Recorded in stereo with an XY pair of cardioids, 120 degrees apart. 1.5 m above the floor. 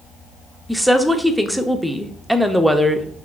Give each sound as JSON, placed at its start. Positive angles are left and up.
{"t": 0.7, "sound": "a woman speaking", "azimuth_deg": -5, "distance_m": 0.6}